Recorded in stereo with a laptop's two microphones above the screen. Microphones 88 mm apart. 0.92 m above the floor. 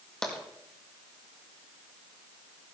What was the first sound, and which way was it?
Tapping, 5° left (ahead or behind).